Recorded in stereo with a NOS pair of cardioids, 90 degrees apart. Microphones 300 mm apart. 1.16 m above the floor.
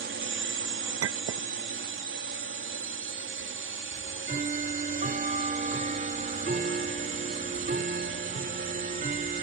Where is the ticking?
25° right.